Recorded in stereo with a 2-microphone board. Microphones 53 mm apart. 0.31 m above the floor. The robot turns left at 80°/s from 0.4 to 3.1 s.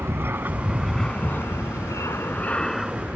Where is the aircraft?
45° right (ahead or behind); by 3.2 s 25° right (ahead or behind).